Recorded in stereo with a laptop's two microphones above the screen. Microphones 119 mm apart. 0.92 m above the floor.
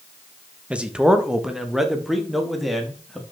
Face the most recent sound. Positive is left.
turn(degrees=0)  # may be behind; listen again after turning